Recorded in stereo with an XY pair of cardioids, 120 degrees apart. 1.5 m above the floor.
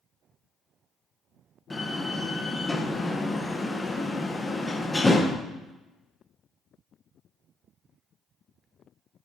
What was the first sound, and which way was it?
A door slam, 20° left.